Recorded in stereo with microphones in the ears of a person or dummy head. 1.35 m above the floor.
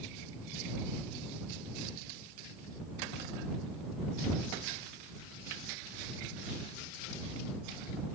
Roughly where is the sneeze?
I don't hear a sneeze.